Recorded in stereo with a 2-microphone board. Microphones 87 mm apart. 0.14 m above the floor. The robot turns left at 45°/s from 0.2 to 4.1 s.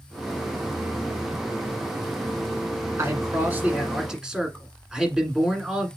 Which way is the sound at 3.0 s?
120° right.